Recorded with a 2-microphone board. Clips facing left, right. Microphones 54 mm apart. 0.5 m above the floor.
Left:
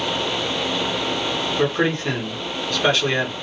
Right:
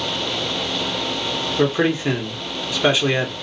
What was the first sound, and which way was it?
A man speaking, 10° right (ahead or behind).